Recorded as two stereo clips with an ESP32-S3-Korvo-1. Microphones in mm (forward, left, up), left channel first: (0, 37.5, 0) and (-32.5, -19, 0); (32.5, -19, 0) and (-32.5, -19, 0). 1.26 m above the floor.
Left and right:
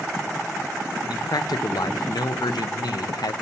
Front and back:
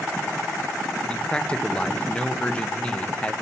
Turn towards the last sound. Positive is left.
turn(degrees=75)